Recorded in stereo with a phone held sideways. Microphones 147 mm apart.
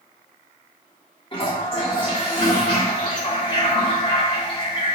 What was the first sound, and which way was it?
A toilet flushing, 35° left (ahead or behind).